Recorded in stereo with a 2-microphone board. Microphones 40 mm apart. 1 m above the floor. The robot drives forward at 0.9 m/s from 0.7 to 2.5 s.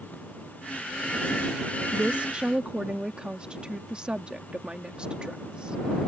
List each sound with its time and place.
1.9 s a woman speaking: 40° right (ahead or behind); by 5.8 s 25° right (ahead or behind)